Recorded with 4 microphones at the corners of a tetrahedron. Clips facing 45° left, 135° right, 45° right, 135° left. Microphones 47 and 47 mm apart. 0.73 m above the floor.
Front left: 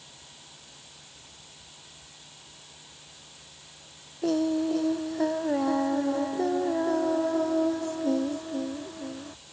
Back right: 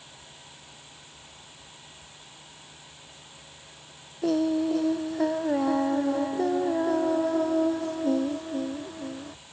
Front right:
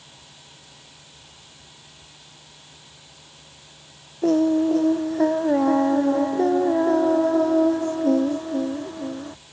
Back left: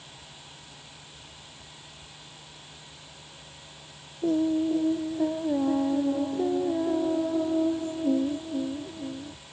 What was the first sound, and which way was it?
Singing, 50° right.